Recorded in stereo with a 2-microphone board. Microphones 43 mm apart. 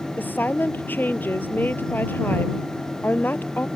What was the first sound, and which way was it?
A woman speaking, 60° left (ahead or behind).